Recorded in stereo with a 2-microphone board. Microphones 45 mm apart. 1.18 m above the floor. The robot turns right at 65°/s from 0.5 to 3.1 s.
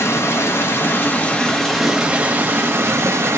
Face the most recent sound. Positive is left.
turn(degrees=-95)